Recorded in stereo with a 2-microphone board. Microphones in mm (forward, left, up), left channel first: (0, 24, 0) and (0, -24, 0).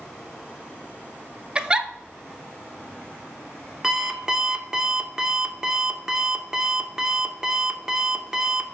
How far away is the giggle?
About 0.5 m.